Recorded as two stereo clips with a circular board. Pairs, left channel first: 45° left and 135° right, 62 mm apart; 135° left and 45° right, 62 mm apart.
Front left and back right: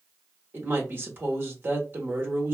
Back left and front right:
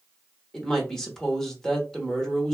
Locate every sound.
0.5 s a woman speaking: 155° right, 1.0 m